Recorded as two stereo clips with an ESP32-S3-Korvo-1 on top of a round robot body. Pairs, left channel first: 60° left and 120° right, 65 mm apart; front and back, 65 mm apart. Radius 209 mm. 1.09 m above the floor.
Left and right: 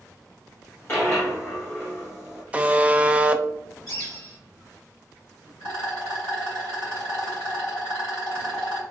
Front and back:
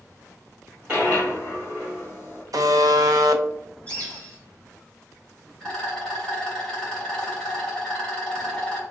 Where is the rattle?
75° left, 0.7 m.